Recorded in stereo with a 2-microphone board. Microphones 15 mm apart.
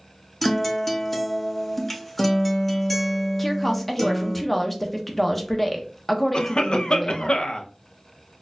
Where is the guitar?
10° left (ahead or behind), 0.7 m.